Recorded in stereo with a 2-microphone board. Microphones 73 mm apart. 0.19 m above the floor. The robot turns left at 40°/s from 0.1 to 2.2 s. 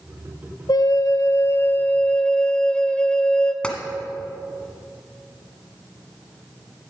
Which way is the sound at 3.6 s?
15° left (ahead or behind).